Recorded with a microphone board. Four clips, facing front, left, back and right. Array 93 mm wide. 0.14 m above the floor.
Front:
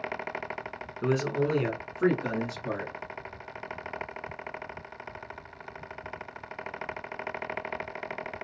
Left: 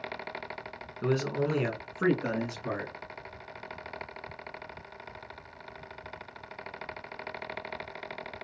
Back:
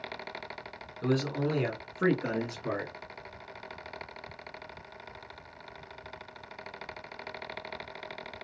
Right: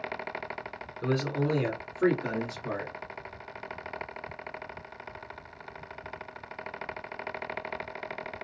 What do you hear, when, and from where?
1.0 s a man speaking: 20° left, 1.2 m; by 2.9 s 140° left, 1.6 m